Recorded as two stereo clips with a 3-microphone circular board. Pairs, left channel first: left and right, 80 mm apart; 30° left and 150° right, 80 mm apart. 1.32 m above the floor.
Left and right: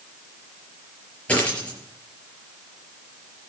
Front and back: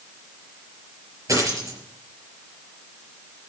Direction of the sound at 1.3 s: 165° left.